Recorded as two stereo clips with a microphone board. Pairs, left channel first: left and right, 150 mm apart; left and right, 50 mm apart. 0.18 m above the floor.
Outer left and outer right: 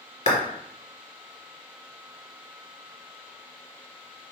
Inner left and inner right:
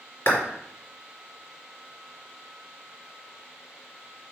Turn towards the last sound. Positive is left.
turn(degrees=50)  # may be behind; listen again after turning